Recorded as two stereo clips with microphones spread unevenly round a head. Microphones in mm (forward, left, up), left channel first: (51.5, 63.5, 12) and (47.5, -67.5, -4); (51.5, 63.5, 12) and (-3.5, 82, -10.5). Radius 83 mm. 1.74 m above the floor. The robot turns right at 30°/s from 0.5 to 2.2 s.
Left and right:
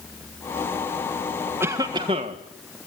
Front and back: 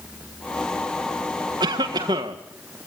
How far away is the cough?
About 1.5 m.